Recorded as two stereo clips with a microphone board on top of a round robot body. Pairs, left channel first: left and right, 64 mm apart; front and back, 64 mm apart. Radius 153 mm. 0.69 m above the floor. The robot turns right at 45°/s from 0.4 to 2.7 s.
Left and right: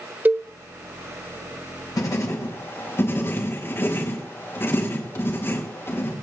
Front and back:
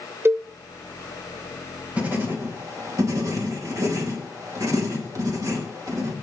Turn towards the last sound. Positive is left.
turn(degrees=145)